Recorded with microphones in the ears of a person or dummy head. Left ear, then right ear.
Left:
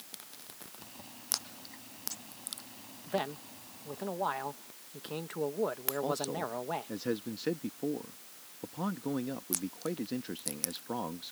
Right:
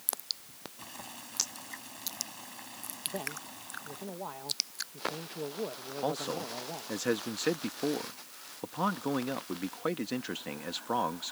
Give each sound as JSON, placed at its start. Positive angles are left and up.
{"t": 0.8, "sound": "boiling", "side_deg": -45}
{"t": 3.1, "sound": "a man speaking", "side_deg": 50}
{"t": 6.0, "sound": "a man speaking", "side_deg": -35}